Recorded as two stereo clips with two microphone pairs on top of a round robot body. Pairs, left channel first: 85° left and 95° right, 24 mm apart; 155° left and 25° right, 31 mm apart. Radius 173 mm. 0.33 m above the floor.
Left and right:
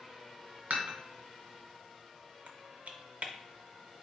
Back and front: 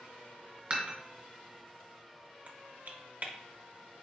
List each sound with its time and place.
0.7 s dishes clattering: 80° right, 1.6 m
2.5 s typing on a keyboard: 65° right, 0.7 m